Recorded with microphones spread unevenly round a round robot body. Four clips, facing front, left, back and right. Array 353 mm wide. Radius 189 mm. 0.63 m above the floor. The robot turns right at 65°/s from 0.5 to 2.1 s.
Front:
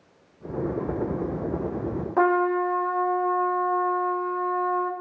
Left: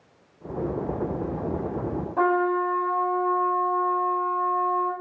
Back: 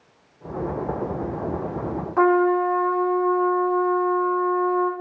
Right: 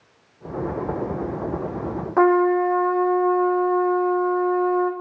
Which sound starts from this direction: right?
A trumpet, at 2.2 s.